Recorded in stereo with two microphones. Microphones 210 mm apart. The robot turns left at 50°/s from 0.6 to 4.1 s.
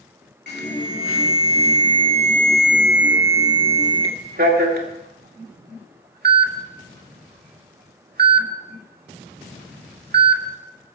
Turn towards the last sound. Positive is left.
turn(degrees=-45)  # may be behind; listen again after turning